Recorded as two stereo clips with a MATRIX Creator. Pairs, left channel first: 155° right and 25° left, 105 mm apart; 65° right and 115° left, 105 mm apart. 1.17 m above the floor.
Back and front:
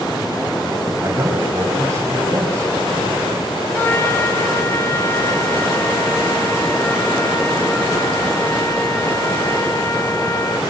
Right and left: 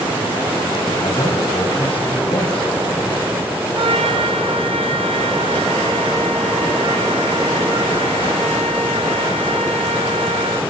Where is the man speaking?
40° right, 6.5 m.